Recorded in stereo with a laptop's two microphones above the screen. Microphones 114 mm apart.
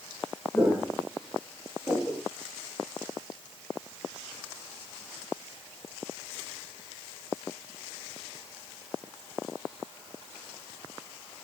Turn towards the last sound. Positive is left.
turn(degrees=30)  # may be behind; listen again after turning